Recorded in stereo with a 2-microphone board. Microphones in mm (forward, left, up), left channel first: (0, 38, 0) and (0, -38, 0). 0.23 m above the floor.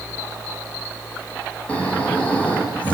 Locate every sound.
1.7 s snoring: 20° left (ahead or behind), 6.5 m